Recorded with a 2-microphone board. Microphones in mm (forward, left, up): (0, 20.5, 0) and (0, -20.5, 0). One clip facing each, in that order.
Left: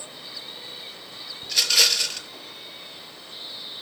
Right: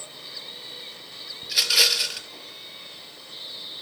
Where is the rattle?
5° right (ahead or behind), 0.8 m.